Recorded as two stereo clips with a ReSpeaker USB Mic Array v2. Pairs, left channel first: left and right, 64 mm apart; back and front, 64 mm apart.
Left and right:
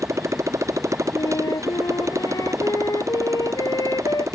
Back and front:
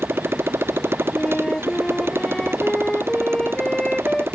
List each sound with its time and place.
0.0 s a motorcycle: 50° right
1.1 s a flute: 105° left